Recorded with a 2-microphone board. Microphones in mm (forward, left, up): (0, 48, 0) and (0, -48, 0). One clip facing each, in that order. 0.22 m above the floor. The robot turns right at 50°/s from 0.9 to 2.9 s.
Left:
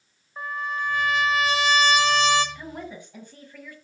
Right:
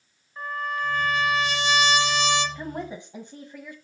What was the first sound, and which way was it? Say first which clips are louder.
A trumpet: even; 30° left.